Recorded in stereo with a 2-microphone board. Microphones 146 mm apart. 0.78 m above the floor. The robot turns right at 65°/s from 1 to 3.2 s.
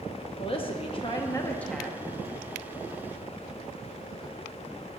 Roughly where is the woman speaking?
Behind left.